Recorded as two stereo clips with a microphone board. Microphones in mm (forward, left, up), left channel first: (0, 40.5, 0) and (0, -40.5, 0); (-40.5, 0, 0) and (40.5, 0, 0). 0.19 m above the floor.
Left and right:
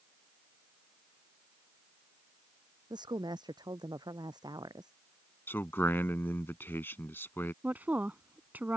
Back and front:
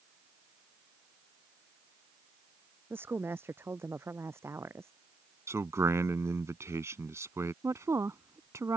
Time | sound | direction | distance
2.9 | a woman speaking | 65° right | ?
5.5 | a man speaking | 40° left | ?
7.6 | a woman speaking | 30° right | ?